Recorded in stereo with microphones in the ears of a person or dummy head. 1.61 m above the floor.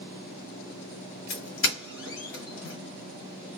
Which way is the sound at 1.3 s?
60° left (ahead or behind).